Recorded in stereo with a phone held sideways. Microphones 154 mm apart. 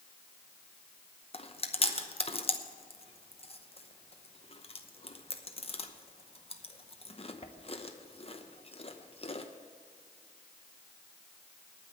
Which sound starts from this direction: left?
Chewing, at 1.3 s.